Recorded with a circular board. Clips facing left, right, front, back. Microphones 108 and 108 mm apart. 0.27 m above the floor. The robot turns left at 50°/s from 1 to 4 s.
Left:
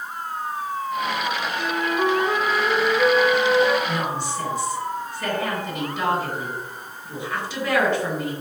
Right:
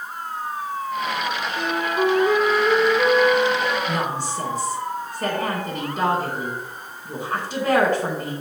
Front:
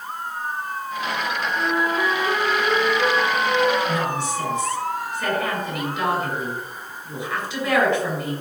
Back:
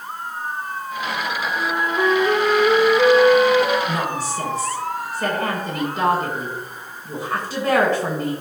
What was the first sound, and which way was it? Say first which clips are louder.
A flute: right 2 dB, even; 95° right.